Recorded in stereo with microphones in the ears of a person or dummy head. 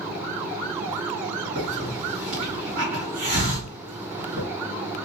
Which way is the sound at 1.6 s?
55° right (ahead or behind).